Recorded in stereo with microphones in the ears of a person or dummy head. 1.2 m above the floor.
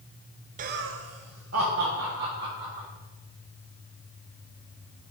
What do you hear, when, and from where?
0.6 s laughter: 40° right (ahead or behind), 0.6 m; by 2.9 s 55° right (ahead or behind), 2.5 m